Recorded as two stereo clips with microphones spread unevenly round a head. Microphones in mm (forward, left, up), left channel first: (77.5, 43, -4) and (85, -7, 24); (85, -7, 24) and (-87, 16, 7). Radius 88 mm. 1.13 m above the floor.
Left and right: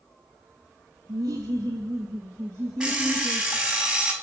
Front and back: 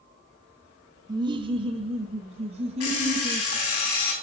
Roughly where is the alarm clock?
Ahead.